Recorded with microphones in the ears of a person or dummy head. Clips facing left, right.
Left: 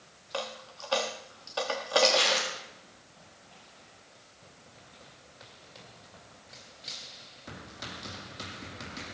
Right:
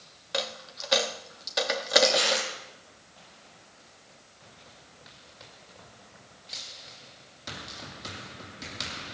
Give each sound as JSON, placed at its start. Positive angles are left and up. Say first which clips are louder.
{"t": 0.3, "sound": "a dropped coin", "louder": "right 3 dB", "side_deg": -20, "distance_m": 1.1}
{"t": 2.0, "sound": "crumpling", "louder": "right 1 dB", "side_deg": -10, "distance_m": 9.5}